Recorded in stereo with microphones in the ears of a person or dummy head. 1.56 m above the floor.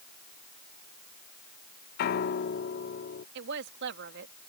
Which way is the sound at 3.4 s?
65° right (ahead or behind).